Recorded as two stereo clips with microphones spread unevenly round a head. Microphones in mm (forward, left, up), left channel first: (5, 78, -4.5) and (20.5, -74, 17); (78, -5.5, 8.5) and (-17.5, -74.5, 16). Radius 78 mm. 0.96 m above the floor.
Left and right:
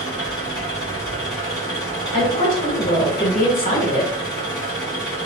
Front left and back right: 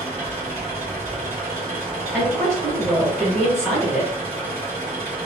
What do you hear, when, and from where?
0.0 s an engine running: 160° left, 2.0 m
2.1 s a woman speaking: 145° left, 1.8 m